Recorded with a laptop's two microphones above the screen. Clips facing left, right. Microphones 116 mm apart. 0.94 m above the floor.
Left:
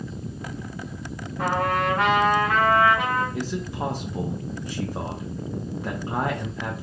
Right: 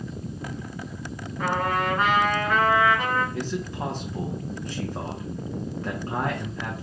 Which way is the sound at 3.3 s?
10° left (ahead or behind).